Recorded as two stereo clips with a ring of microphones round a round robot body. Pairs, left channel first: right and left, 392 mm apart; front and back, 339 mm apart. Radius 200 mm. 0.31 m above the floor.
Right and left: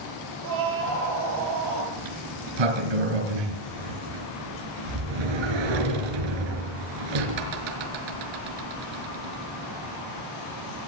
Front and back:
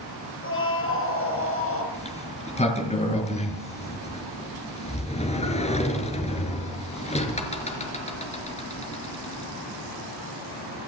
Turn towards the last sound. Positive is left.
turn(degrees=70)